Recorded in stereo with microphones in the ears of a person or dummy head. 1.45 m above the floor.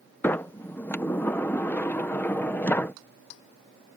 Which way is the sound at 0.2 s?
20° left (ahead or behind).